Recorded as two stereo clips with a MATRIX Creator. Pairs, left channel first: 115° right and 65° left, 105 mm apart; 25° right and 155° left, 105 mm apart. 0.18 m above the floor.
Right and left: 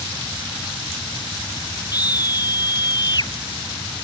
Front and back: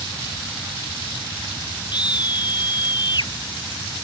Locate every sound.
1.9 s a scream: 65° right